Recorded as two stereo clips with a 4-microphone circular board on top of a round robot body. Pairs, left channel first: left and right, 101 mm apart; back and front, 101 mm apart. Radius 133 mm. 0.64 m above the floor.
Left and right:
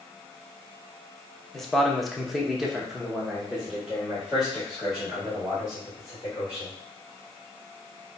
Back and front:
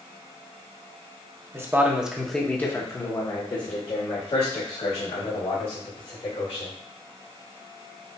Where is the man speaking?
5° left, 0.9 m; by 6.8 s 175° right, 2.5 m.